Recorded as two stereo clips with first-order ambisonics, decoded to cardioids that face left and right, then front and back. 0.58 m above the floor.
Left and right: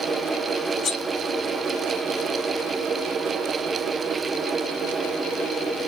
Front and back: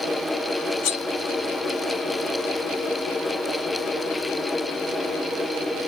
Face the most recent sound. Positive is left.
turn(degrees=30)